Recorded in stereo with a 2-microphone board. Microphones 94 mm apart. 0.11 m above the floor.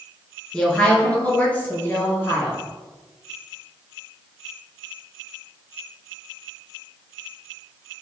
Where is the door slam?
No door slam in this recording.